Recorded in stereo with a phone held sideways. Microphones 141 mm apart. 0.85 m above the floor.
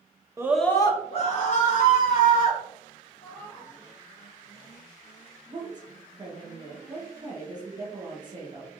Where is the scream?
20° right (ahead or behind), 0.6 m; by 2.6 s 75° left (ahead or behind), 2 m.